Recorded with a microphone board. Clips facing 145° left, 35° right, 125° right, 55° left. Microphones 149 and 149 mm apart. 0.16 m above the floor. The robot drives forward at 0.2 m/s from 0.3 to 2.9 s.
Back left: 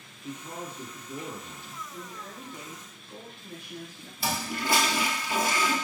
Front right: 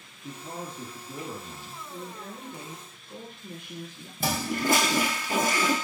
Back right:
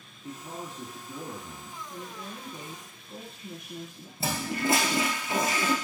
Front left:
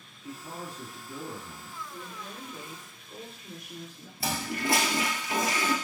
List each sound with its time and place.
0.2 s a man speaking: 80° right, 2.5 m; by 1.8 s 90° right, 2.5 m
1.9 s a woman speaking: 65° right, 1.3 m; by 4.1 s 75° right, 1.3 m
4.2 s a toilet flushing: 65° right, 1.0 m